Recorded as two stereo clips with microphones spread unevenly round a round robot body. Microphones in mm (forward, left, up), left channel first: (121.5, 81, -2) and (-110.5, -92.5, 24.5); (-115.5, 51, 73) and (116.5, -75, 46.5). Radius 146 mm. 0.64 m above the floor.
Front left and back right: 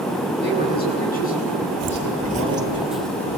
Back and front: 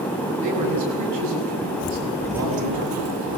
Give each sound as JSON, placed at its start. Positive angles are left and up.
{"t": 0.4, "sound": "a man speaking", "azimuth_deg": -20, "distance_m": 7.5}
{"t": 1.8, "sound": "footsteps", "azimuth_deg": 180, "distance_m": 0.9}